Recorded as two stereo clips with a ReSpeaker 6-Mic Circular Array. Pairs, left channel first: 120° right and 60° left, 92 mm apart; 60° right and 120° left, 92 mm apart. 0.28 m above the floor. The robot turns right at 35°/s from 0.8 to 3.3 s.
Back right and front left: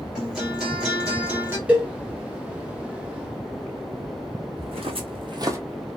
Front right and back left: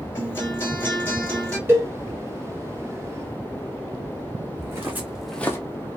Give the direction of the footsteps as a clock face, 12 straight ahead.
10 o'clock.